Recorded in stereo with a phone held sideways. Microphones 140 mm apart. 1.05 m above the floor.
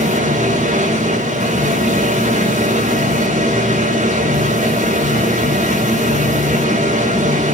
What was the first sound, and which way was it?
A machine running, 70° right (ahead or behind).